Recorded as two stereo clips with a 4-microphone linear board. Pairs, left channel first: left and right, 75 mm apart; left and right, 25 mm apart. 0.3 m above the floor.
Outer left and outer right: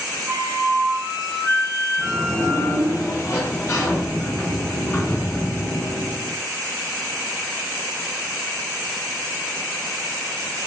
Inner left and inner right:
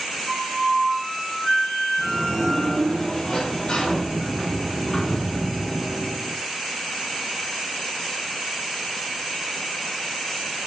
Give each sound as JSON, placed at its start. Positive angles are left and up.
{"t": 0.3, "sound": "a flute", "side_deg": -40, "distance_m": 1.5}
{"t": 2.0, "sound": "a sliding door", "side_deg": 35, "distance_m": 1.4}